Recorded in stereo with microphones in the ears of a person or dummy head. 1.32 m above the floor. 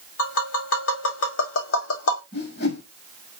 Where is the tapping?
80° left, 1.9 m.